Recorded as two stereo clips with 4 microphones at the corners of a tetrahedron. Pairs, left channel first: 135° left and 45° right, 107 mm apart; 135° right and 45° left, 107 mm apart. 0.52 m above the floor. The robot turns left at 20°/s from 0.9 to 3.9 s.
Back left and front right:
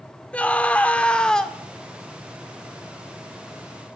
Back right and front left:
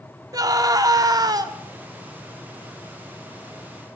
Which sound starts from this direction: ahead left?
A scream, at 0.3 s.